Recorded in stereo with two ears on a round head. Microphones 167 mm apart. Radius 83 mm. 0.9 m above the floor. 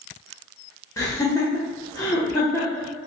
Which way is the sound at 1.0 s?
20° left (ahead or behind).